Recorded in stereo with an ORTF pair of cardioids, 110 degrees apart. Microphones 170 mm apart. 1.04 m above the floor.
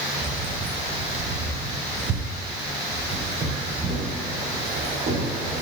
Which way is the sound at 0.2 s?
50° right.